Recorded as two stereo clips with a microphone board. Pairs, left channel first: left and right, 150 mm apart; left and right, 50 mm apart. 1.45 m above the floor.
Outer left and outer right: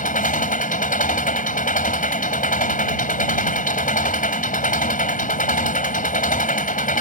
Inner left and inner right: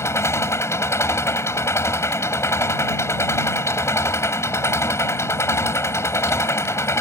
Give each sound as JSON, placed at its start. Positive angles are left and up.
{"t": 0.0, "sound": "an engine running", "side_deg": 65}